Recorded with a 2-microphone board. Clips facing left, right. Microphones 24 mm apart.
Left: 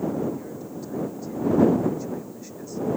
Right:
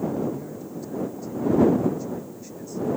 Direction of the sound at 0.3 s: 10° left (ahead or behind).